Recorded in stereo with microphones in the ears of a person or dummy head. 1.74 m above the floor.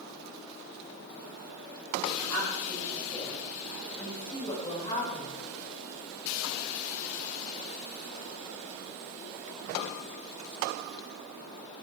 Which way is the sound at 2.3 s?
20° left (ahead or behind).